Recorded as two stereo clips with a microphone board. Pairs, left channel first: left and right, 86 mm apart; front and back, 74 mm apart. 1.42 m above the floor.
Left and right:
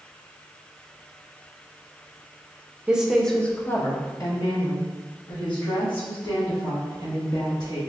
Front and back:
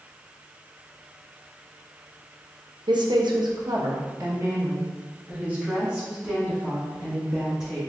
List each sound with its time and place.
2.9 s a woman speaking: 170° right, 0.6 m; by 7.8 s 100° left, 2.5 m